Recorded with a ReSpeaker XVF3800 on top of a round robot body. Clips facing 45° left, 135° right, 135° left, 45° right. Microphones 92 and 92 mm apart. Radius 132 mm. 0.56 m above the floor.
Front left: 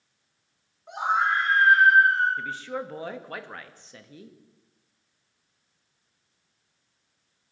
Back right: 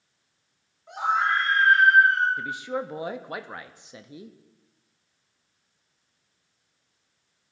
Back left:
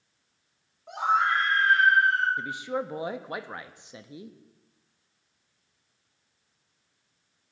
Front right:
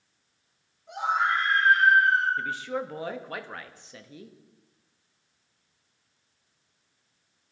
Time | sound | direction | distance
0.9 | a scream | 115° left | 7.5 m
2.4 | a man speaking | straight behind | 0.9 m